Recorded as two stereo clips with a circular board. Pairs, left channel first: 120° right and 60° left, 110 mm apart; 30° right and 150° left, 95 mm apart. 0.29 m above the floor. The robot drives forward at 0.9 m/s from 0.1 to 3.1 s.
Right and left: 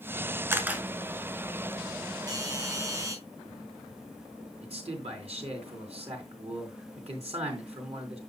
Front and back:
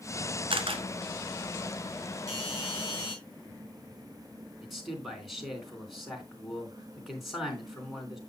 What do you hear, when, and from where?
0.5 s a camera shutter: 130° left, 1.2 m; by 0.8 s 140° left, 1.4 m
2.3 s a doorbell: 105° left, 4.5 m; by 3.1 s 115° left, 4.5 m
4.6 s a man speaking: 60° left, 3.5 m